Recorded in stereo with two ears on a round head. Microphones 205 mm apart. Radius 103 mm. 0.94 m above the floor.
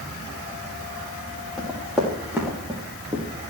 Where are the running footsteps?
Centre (ahead or behind), 4.5 m; by 3.2 s 20° right (ahead or behind), 4 m.